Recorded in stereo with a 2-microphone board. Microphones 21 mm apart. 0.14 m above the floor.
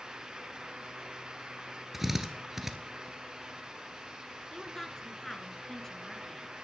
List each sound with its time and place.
1.9 s a drill: 20° right (ahead or behind), 1.2 m
4.5 s a woman speaking: 20° left (ahead or behind), 1.7 m